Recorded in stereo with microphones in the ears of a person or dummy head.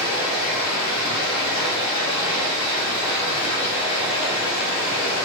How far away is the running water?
About 1.5 m.